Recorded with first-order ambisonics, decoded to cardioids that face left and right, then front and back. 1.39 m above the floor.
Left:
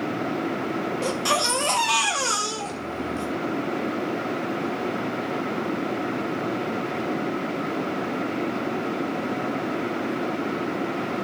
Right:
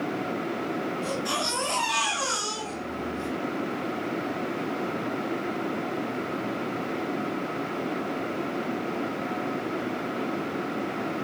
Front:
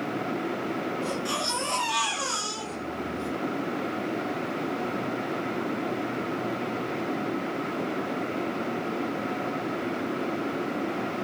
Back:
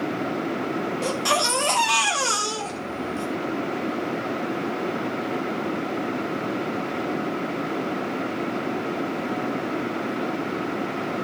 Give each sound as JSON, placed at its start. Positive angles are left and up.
{"t": 1.0, "sound": "a baby crying", "azimuth_deg": 135, "distance_m": 6.0}